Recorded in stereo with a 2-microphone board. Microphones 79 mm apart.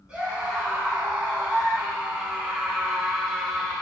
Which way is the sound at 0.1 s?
15° right (ahead or behind).